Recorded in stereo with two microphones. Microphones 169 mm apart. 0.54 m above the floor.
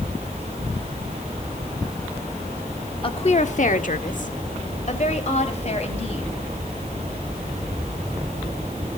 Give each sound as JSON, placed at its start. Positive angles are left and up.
{"t": 3.0, "sound": "a woman speaking", "side_deg": 35, "distance_m": 1.0}